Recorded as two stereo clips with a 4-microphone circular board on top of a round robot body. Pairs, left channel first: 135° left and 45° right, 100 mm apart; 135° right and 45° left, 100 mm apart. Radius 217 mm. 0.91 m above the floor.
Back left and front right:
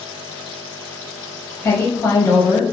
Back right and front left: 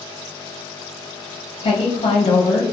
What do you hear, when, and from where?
1.6 s a woman speaking: 160° right, 0.5 m